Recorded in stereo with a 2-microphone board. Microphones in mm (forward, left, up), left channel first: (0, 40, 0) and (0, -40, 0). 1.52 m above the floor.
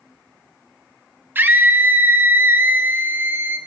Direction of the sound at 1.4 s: 25° right (ahead or behind).